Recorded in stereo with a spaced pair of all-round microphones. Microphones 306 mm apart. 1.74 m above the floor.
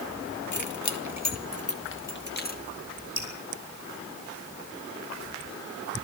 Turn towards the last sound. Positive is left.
turn(degrees=45)  # may be behind; listen again after turning